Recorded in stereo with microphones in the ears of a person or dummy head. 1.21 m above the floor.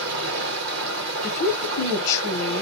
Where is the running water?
65° right (ahead or behind), 0.7 m.